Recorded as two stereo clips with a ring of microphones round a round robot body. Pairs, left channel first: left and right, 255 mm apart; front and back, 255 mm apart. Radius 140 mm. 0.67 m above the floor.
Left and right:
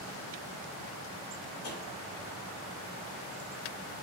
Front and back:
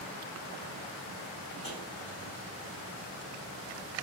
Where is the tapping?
65° left, 1.7 m.